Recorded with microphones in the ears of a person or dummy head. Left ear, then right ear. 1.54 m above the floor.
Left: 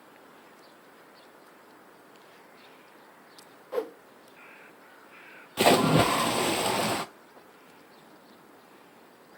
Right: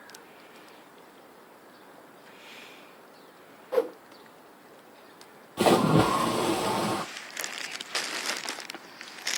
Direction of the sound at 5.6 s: 25° left (ahead or behind).